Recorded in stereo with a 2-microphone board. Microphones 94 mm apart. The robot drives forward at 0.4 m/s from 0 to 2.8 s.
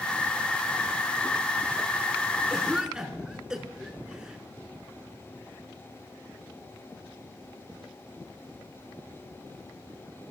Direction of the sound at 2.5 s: 10° right (ahead or behind).